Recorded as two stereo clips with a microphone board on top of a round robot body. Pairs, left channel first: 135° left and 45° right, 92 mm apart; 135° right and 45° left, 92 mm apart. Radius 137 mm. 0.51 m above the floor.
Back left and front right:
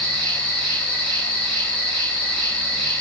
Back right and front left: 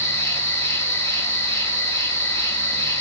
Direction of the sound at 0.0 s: 160° right.